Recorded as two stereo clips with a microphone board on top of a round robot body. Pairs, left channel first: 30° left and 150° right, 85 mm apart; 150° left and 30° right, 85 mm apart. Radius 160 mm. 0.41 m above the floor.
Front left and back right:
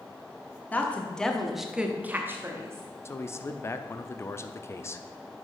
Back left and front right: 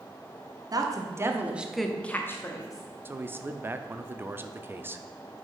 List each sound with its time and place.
0.7 s a woman speaking: 35° right, 1.6 m; by 2.8 s 165° left, 1.6 m
3.0 s a man speaking: 10° left, 0.9 m